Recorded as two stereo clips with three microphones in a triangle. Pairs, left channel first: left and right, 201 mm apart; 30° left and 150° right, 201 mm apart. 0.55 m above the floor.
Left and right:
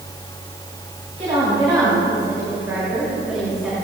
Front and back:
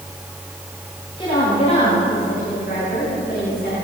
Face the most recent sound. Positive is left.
turn(degrees=0)